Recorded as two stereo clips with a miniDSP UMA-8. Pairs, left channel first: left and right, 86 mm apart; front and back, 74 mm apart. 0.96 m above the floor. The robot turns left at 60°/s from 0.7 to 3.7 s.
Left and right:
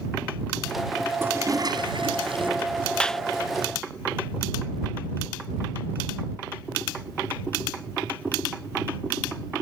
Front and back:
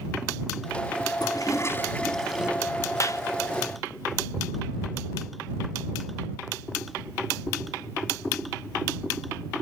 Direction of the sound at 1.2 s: 25° right.